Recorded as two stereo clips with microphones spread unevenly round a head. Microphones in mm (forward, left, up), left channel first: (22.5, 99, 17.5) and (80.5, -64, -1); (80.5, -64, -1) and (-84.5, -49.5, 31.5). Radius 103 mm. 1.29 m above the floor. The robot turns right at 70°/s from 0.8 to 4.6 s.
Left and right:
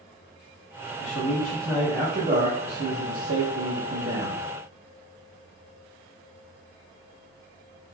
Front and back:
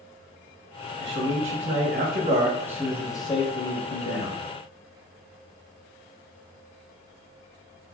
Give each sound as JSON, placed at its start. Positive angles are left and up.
{"t": 1.0, "sound": "a man speaking", "azimuth_deg": 135, "distance_m": 1.1}